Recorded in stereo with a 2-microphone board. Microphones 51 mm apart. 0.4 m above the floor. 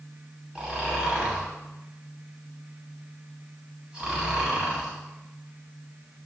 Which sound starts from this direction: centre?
Snoring, at 0.6 s.